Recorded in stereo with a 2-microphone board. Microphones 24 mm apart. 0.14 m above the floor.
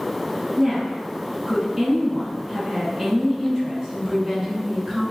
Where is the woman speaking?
20° right (ahead or behind), 1.8 m.